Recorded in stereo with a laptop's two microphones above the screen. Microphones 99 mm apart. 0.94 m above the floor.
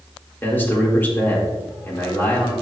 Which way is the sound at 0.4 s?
20° left (ahead or behind).